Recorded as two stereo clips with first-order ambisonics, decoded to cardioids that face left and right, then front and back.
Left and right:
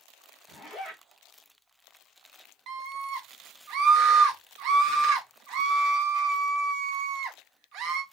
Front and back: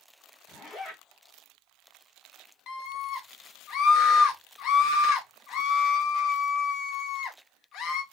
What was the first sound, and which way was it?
A zipper, 50° left.